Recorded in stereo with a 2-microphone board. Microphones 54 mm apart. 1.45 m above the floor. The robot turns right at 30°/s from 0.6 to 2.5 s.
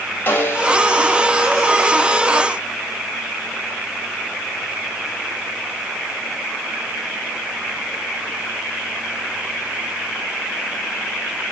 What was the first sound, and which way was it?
A snare drum, 35° left (ahead or behind).